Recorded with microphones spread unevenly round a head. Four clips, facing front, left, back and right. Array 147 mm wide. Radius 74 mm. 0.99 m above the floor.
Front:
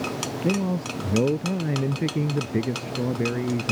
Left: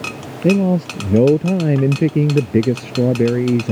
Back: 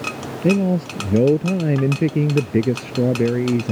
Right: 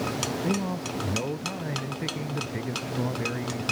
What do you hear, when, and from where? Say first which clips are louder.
0.4 s a man speaking: left 18 dB, back 8 dB; 115° left